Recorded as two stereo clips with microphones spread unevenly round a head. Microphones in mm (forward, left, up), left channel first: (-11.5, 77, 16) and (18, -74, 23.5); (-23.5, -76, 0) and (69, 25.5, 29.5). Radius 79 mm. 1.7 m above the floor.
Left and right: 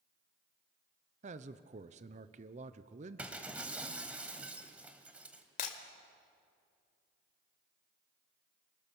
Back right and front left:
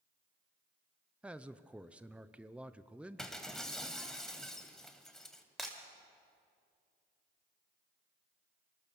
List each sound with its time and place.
1.2 s a man speaking: 30° right, 0.8 m
3.2 s breaking glass: 20° right, 1.6 m
5.6 s breaking glass: 125° left, 1.9 m